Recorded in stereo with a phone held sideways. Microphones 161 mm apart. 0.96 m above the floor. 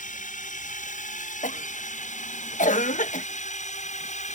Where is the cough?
50° left (ahead or behind).